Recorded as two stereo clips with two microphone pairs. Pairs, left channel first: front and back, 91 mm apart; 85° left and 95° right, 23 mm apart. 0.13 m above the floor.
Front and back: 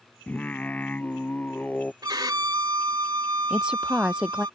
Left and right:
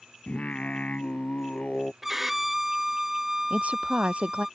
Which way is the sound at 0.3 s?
75° left.